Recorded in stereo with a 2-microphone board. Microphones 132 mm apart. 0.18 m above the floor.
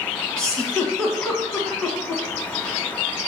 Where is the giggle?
5° left (ahead or behind), 1.3 m.